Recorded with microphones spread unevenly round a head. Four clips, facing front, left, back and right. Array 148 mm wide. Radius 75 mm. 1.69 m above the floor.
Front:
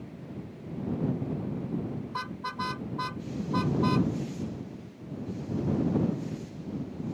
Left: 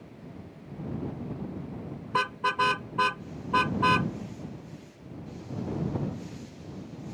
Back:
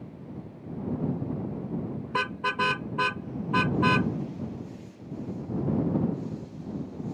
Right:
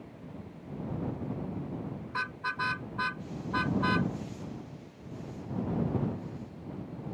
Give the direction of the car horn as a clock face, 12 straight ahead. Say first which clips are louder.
Left 10 dB, back 6 dB; 7 o'clock.